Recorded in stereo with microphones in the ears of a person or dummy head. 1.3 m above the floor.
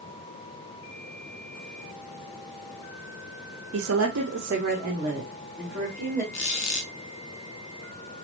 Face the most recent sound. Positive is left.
turn(degrees=35)  # may be behind; listen again after turning